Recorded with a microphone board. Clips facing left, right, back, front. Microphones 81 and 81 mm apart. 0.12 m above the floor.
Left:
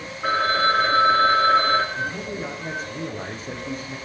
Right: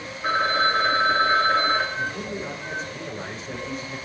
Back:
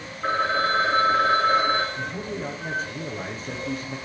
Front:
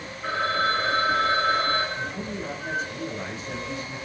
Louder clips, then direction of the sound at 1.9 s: Left 1 dB, back 1 dB; 135° left.